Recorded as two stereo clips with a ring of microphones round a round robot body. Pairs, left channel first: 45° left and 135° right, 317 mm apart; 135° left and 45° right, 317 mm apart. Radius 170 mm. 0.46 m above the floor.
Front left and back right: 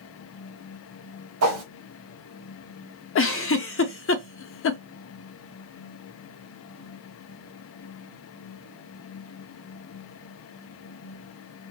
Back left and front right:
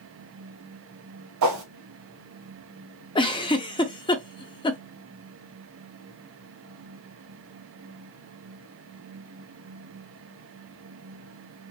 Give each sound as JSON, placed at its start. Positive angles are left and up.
{"t": 1.4, "sound": "a whoosh", "azimuth_deg": -85, "distance_m": 0.8}
{"t": 3.1, "sound": "a giggle", "azimuth_deg": 65, "distance_m": 0.6}